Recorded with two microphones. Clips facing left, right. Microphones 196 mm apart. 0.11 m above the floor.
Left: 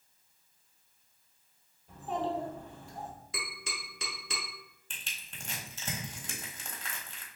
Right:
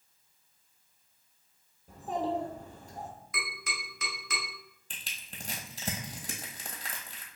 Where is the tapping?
30° left (ahead or behind), 1.5 m.